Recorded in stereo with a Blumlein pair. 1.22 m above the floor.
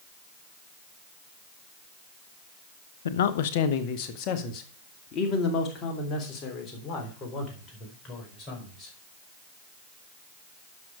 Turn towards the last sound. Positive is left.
turn(degrees=25)